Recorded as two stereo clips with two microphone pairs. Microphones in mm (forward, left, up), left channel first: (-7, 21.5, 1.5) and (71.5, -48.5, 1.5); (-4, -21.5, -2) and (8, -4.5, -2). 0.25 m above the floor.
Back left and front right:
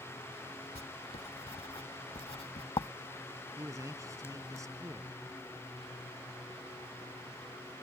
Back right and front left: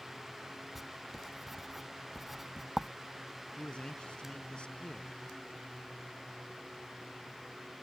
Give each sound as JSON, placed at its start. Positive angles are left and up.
{"t": 0.8, "sound": "writing", "azimuth_deg": 140}
{"t": 3.6, "sound": "a man speaking", "azimuth_deg": -95}